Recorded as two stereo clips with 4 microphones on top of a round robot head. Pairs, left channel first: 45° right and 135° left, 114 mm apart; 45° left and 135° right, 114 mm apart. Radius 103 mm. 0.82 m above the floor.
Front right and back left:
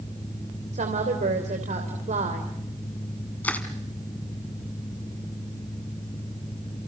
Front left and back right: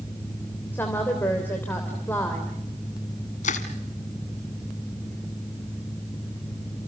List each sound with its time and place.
0.7 s a woman speaking: 120° left, 3 m
3.4 s crushing: 30° left, 1.3 m